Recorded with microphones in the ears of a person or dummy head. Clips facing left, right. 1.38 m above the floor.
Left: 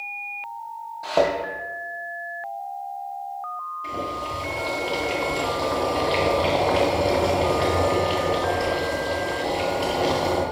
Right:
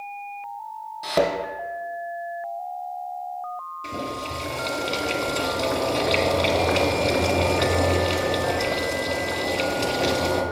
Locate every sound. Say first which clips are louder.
1.0 s a thud: left 1 dB; 15° right (ahead or behind), 2 m
3.8 s boiling: left 1 dB; 20° right (ahead or behind), 2 m